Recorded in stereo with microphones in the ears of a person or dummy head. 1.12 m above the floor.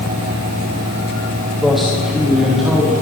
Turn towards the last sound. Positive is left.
turn(degrees=0)  # may be behind; listen again after turning